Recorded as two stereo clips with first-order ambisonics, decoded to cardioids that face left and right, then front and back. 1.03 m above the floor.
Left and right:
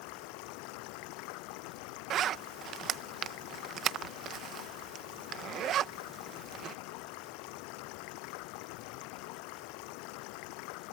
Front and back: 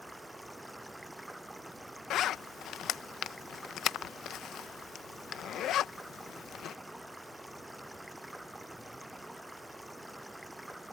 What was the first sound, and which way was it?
Running water, 95° left.